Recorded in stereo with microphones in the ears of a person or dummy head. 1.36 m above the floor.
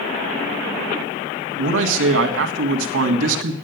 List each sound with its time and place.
1.6 s a man speaking: 85° right, 1.8 m